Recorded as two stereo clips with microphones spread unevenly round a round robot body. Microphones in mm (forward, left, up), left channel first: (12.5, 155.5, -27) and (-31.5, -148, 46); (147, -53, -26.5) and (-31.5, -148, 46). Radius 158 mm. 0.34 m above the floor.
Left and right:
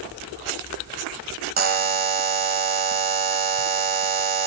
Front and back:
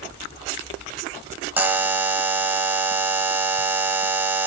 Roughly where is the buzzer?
Ahead right.